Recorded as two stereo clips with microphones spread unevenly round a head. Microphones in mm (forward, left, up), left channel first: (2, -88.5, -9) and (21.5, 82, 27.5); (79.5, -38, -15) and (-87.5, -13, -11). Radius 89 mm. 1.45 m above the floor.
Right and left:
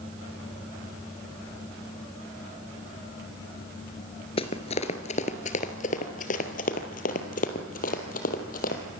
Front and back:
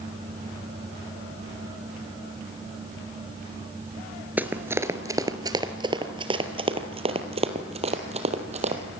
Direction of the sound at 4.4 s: 130° right.